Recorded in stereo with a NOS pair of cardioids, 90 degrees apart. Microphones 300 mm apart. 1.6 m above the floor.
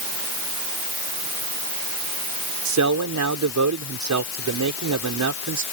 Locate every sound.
2.6 s a man speaking: 70° right